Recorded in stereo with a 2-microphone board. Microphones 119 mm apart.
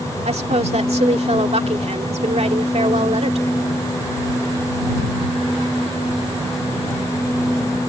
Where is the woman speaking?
65° right (ahead or behind).